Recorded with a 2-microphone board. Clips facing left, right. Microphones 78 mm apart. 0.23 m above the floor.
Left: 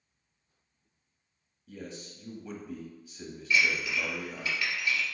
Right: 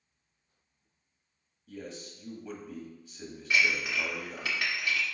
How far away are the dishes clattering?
About 1.5 m.